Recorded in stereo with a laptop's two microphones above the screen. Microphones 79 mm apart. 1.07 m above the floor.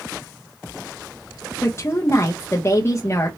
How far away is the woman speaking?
About 0.6 m.